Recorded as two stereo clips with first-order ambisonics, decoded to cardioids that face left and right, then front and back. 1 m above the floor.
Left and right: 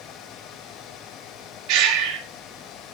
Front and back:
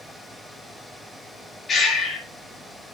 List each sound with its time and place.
1.7 s breathing: 65° right, 1.8 m